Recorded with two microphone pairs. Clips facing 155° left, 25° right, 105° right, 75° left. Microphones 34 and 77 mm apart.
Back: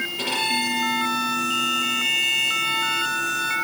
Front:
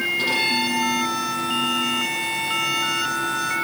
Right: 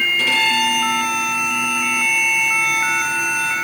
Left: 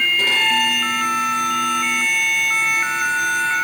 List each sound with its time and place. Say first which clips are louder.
0.2 s a violin: even, right 1 dB; 125° left, 6 m